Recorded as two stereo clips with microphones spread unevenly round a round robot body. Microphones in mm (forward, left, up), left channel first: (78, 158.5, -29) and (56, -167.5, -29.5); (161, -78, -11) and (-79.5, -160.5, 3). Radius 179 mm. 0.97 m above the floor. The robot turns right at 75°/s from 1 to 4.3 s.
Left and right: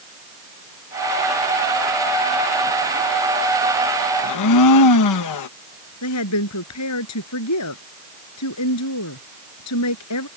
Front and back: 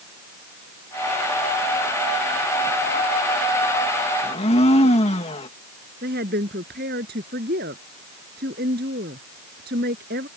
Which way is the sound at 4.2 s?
80° left.